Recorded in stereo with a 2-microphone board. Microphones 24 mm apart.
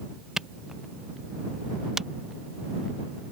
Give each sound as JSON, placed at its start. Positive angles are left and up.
{"t": 0.4, "sound": "a camera shutter", "side_deg": -20}